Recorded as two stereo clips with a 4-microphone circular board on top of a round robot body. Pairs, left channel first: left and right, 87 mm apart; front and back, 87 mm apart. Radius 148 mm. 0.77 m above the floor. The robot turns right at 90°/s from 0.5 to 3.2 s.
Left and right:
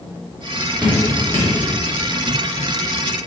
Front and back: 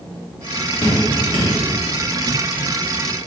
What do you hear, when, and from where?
0.8 s dripping: 25° right, 1.6 m; by 1.5 s 35° left, 1.6 m